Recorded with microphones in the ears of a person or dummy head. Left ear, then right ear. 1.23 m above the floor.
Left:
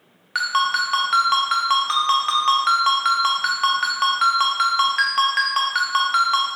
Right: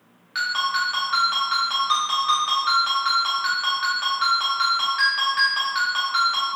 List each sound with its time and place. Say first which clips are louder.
0.3 s a ringtone: left 3 dB; 35° left (ahead or behind), 0.7 m